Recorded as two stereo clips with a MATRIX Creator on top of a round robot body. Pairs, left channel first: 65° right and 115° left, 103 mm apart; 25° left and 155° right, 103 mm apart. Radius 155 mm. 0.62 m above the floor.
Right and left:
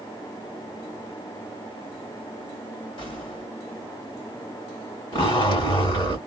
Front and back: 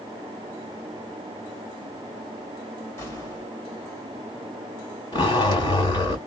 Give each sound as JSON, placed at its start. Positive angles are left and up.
{"t": 3.0, "sound": "an explosion", "azimuth_deg": -35, "distance_m": 2.5}
{"t": 5.1, "sound": "a zipper", "azimuth_deg": -30, "distance_m": 2.0}